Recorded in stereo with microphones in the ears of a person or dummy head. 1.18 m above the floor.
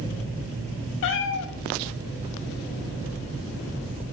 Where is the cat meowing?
60° left (ahead or behind), 1.2 m.